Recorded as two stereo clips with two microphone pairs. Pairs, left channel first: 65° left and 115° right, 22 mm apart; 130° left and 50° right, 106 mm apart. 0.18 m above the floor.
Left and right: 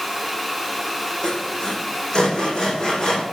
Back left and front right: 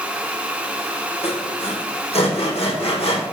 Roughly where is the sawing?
Behind left.